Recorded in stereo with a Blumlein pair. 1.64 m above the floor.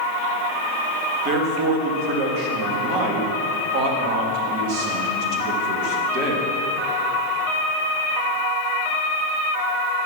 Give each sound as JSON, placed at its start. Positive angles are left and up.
{"t": 1.2, "sound": "a man speaking", "azimuth_deg": -40, "distance_m": 2.5}